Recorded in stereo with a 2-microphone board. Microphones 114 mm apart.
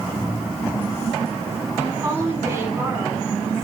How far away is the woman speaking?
About 9.5 m.